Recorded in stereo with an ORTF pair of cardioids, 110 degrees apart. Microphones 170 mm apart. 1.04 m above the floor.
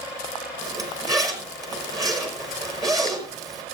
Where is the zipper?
20° right, 5 m.